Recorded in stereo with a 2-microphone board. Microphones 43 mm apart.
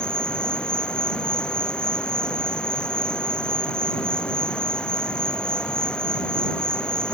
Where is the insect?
20° left (ahead or behind).